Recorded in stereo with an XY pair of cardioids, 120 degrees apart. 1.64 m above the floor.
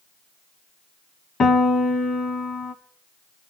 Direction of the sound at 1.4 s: 45° left.